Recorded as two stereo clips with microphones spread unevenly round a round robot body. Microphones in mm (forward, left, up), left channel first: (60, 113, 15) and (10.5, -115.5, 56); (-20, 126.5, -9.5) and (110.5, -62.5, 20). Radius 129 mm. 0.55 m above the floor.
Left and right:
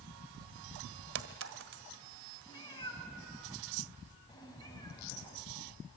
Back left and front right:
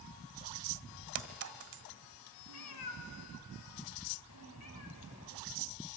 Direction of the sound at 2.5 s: 155° left.